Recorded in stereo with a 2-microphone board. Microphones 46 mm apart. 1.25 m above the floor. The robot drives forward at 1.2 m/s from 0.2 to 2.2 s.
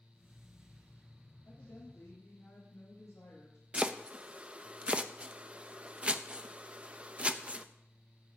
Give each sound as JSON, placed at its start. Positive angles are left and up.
{"t": 1.4, "sound": "a woman speaking", "side_deg": 90, "distance_m": 5.5}
{"t": 3.7, "sound": "chopping", "side_deg": -25, "distance_m": 0.5}